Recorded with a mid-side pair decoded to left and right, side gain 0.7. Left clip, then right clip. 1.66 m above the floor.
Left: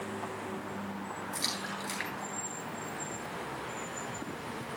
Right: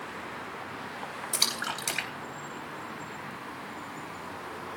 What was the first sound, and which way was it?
A splash, 65° right.